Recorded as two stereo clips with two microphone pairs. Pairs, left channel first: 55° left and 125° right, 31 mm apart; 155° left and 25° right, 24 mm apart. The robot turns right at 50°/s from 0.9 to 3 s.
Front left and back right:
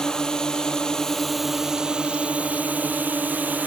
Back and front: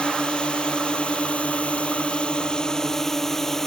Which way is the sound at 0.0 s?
120° left.